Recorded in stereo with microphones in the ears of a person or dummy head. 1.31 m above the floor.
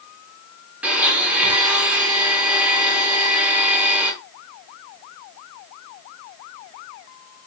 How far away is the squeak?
No squeak in this recording.